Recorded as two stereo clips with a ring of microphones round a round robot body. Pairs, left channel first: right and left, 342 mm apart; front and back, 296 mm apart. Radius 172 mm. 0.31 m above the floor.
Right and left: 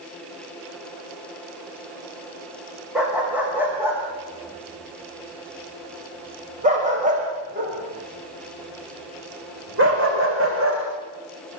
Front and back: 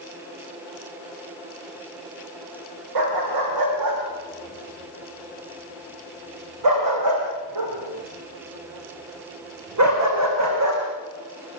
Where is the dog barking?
Straight behind, 8 m; by 10.8 s 145° left, 8.5 m.